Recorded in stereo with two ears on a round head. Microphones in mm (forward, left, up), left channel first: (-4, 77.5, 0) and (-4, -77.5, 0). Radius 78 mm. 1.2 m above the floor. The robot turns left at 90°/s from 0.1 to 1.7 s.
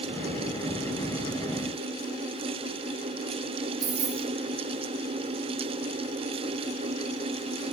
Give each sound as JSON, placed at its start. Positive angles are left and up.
{"t": 3.8, "sound": "keys jangling", "side_deg": -80, "distance_m": 2.5}